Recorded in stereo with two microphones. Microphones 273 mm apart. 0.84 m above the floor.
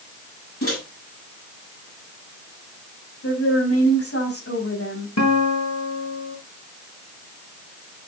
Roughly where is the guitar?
Left.